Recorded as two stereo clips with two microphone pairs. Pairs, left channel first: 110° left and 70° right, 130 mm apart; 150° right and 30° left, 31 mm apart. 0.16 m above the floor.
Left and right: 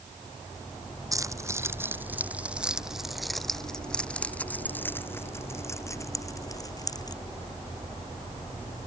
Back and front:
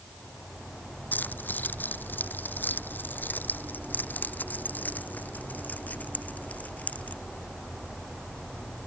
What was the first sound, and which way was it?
Keys jangling, 135° right.